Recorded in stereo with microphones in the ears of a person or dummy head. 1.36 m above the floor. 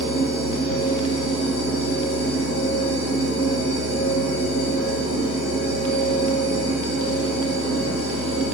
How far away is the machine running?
About 1.0 m.